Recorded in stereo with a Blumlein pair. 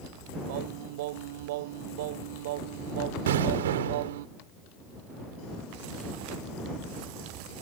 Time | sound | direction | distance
0.5 | singing | 50° right | ?
3.3 | an explosion | 60° right | ?